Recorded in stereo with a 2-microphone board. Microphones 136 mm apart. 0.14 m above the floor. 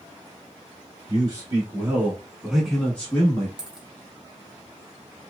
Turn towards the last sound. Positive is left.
turn(degrees=-5)  # may be behind; listen again after turning